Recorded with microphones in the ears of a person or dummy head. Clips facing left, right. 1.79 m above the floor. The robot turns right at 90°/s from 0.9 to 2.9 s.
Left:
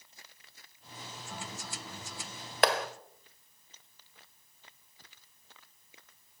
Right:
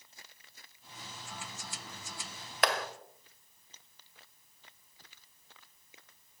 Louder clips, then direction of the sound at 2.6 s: Left 4 dB; 25° left (ahead or behind).